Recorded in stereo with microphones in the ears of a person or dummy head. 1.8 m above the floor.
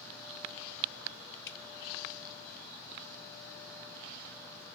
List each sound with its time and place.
1.5 s dripping: 65° left (ahead or behind), 0.9 m